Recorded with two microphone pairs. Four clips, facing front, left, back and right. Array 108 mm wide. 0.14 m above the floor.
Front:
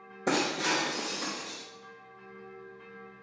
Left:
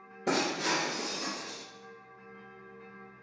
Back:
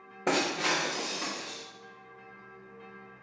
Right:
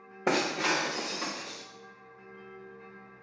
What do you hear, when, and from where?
0.3 s breaking glass: 110° right, 3.5 m